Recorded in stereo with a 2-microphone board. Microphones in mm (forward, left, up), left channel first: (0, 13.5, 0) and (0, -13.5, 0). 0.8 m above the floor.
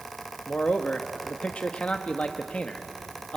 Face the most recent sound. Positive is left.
turn(degrees=50)  # may be behind; listen again after turning